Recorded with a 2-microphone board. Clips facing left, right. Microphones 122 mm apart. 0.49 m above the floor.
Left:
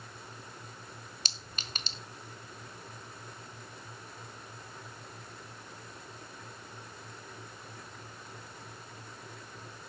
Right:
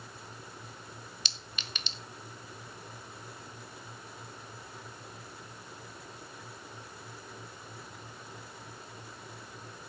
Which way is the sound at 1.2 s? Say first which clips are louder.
Even; 40° left (ahead or behind).